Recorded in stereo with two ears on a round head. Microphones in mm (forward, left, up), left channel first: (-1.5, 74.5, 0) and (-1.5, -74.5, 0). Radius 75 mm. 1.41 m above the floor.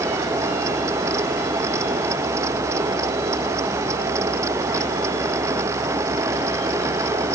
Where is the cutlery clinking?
I don't hear cutlery clinking.